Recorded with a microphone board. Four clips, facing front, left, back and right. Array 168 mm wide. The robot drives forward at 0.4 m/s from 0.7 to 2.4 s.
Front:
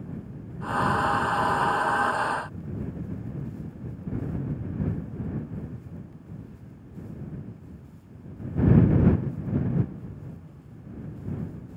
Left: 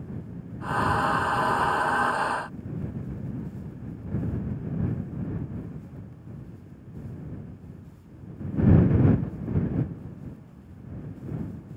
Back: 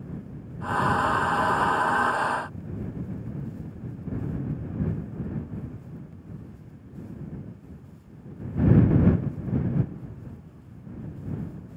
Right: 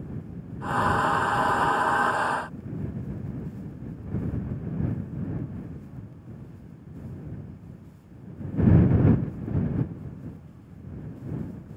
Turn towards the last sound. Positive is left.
No sound to turn to.